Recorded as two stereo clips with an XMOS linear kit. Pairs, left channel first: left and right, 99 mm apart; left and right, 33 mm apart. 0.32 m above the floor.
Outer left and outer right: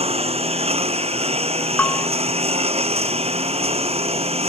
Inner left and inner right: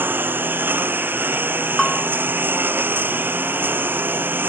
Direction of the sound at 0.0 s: 75° right (ahead or behind).